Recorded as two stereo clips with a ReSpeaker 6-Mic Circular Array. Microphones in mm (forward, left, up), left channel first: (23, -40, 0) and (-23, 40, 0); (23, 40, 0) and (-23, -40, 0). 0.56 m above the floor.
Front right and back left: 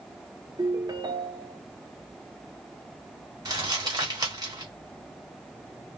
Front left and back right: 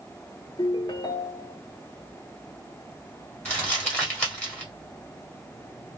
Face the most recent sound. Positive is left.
turn(degrees=130)